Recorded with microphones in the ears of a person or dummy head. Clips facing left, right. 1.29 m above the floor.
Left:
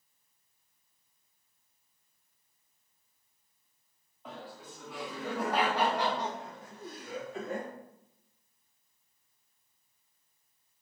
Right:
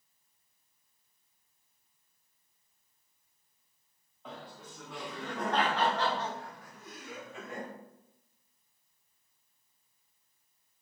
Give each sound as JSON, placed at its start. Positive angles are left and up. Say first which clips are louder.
{"t": 4.2, "sound": "laughter", "louder": "left 1 dB", "side_deg": 0, "distance_m": 1.5}